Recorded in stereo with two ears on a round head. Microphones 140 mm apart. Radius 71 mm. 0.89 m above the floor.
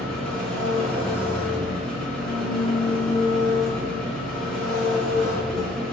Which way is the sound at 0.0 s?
5° left (ahead or behind).